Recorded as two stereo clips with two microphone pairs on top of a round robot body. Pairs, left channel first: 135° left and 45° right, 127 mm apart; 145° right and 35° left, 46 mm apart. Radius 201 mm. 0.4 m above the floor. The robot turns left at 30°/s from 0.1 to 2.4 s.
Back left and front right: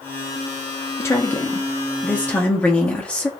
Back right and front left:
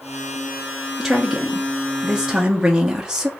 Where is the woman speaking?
115° left, 1.0 m; by 3.3 s 70° left, 1.0 m.